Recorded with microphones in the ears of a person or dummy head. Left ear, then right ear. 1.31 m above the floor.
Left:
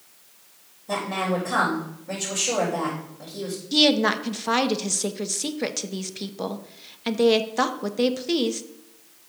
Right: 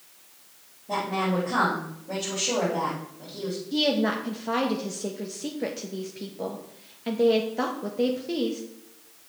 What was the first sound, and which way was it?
A woman speaking, 75° left (ahead or behind).